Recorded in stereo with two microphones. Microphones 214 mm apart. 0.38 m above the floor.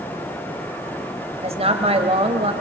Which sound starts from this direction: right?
A woman speaking, at 1.4 s.